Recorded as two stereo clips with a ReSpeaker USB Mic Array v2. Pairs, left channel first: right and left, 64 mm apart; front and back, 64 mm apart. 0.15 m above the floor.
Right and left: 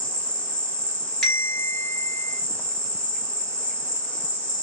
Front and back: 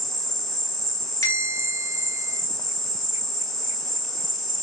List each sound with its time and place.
0.0 s an insect: 80° right, 1.0 m
1.2 s a bell: 15° right, 3 m